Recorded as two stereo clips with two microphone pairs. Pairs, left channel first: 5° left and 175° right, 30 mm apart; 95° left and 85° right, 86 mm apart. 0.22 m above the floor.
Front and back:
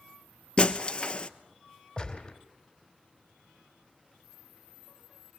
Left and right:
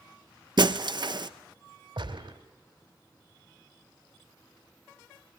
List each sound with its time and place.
0.6 s breaking glass: 55° right, 1.0 m
2.0 s a gunshot: 65° right, 3.5 m